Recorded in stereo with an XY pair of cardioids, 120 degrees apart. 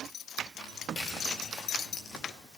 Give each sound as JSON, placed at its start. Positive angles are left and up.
{"t": 0.6, "sound": "footsteps", "azimuth_deg": 15, "distance_m": 7.0}